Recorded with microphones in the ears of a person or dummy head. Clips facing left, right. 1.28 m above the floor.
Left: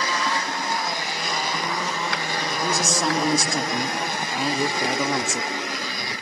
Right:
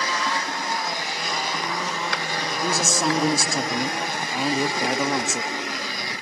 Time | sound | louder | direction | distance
2.6 | a man speaking | right 1 dB | centre (ahead or behind) | 0.5 m